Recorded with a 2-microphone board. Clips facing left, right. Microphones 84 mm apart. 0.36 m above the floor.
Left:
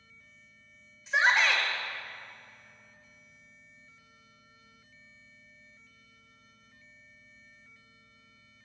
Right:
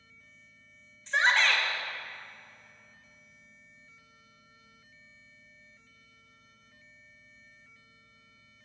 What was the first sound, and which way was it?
A shout, 5° left (ahead or behind).